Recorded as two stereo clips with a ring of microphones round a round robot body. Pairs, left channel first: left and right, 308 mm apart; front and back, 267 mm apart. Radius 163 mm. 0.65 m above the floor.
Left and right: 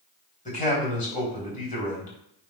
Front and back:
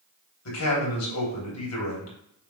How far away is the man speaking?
About 3.5 m.